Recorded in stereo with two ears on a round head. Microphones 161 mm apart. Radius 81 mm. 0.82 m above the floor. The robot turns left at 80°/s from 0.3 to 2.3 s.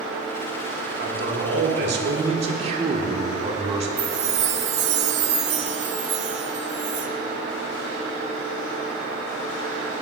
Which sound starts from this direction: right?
A chime, at 4.0 s.